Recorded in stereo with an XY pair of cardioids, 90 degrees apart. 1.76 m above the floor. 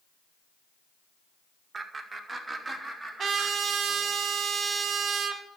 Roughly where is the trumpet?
Ahead right.